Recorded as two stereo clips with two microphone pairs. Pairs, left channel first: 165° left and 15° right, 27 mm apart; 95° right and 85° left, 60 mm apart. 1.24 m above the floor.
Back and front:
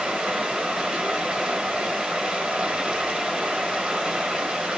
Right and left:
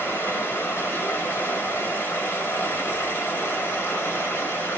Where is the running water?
55° right, 1.4 m.